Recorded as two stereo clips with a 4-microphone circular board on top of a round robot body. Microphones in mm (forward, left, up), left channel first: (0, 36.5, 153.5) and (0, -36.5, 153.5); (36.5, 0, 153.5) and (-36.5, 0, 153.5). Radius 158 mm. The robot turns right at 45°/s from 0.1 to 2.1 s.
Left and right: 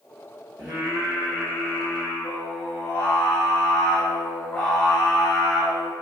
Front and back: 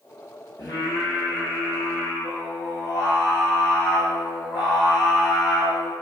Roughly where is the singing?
Ahead right.